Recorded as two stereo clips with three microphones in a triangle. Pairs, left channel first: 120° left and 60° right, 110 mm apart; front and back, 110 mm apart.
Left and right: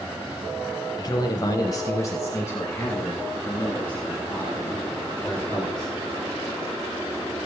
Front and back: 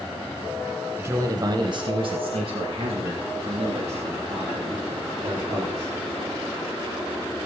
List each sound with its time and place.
1.0 s a man speaking: 130° left, 1.2 m; by 5.9 s 165° right, 5 m